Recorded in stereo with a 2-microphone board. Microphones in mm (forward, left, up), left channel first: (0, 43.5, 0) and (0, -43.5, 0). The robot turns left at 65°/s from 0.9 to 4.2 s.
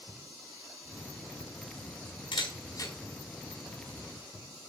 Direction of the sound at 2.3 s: 75° left (ahead or behind).